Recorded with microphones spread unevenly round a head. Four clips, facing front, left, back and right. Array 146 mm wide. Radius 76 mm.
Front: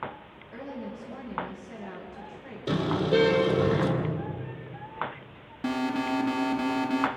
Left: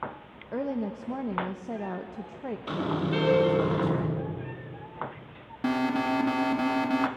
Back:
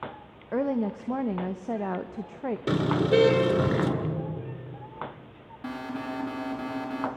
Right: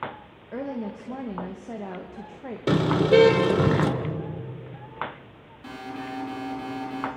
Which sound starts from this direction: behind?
A woman speaking, at 0.5 s.